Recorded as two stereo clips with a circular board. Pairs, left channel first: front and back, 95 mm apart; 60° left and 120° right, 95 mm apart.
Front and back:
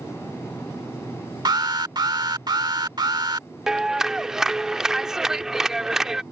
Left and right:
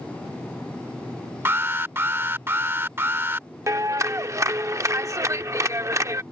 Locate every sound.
1.4 s an alarm: 175° right
3.7 s a clap: 100° right